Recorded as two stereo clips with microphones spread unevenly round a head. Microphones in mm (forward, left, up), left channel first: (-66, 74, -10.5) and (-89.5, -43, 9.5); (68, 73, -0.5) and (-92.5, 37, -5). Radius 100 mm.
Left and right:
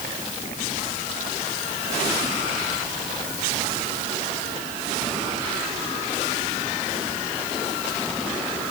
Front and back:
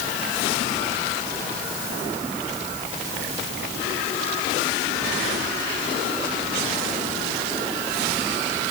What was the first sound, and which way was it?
Only background noise.